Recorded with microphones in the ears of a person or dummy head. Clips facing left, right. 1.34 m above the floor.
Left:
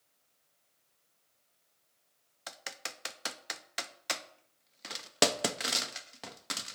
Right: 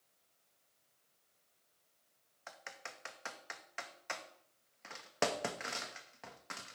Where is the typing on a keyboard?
50° left (ahead or behind), 0.6 m.